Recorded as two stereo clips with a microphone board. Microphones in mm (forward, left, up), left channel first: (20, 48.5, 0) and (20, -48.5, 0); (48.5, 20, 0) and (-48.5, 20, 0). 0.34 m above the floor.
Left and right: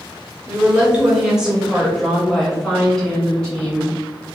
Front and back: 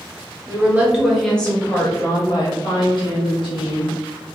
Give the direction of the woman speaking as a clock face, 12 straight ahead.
5 o'clock.